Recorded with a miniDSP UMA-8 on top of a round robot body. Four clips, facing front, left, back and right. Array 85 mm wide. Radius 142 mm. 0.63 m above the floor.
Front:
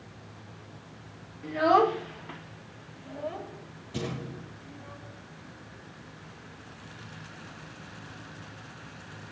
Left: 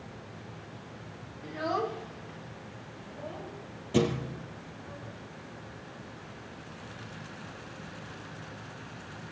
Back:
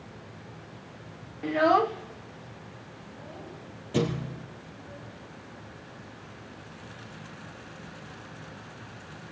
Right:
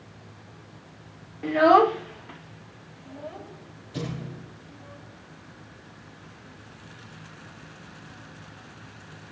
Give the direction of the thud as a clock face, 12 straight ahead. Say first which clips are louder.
Left 7 dB, back 7 dB; 8 o'clock.